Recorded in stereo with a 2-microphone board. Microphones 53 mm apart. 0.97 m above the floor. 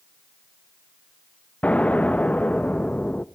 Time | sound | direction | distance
1.6 | an explosion | 25° left (ahead or behind) | 0.6 m